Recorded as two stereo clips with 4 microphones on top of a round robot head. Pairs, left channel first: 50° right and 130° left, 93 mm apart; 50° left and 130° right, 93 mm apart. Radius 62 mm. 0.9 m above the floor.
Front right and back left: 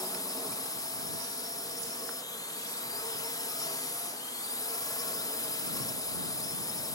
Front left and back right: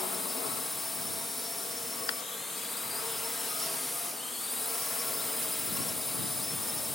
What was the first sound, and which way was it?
A drone, 35° right.